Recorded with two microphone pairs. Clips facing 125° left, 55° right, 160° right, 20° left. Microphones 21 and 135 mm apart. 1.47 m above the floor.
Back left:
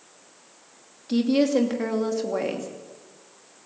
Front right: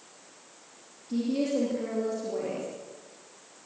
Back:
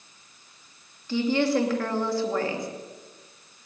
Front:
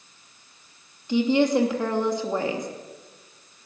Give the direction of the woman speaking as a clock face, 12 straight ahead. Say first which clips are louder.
Back left 7 dB, front 3 dB; 9 o'clock.